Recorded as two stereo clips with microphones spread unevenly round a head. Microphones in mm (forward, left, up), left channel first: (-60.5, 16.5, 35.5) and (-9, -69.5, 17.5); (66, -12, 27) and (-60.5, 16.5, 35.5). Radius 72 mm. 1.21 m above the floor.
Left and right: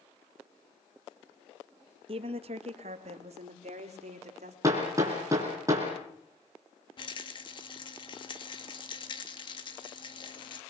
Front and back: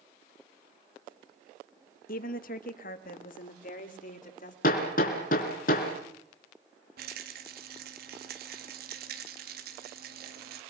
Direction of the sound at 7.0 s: 165° left.